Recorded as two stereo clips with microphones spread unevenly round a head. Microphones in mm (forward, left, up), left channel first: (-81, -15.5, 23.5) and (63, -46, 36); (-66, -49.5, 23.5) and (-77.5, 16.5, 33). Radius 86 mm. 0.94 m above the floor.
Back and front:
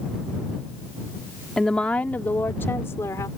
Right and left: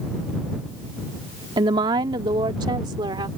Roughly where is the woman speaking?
Left.